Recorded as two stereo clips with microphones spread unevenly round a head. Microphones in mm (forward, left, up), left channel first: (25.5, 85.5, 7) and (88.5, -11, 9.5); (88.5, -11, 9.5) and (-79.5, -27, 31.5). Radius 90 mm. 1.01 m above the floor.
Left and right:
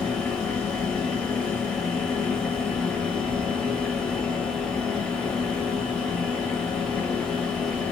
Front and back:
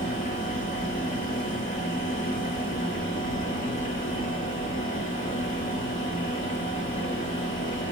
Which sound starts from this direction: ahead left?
A fan, at 0.0 s.